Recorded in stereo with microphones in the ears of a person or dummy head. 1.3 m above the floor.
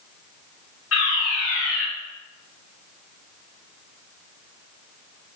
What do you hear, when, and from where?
0.9 s a fire alarm: 80° left, 5.5 m